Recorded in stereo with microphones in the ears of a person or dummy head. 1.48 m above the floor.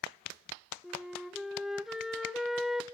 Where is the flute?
5° right (ahead or behind), 0.5 m.